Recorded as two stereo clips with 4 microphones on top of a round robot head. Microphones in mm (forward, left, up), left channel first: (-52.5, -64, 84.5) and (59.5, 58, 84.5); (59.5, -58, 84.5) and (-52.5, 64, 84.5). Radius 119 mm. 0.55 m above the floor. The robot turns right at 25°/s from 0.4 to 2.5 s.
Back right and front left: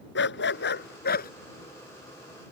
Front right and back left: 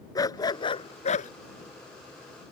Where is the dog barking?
120° right; by 1.3 s 95° right.